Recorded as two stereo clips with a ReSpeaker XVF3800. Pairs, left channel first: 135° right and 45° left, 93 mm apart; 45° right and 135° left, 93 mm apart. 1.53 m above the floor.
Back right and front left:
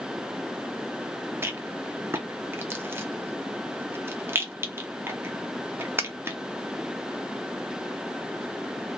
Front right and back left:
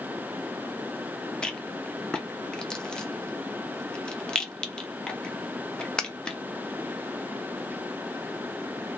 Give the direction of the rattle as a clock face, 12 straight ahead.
11 o'clock.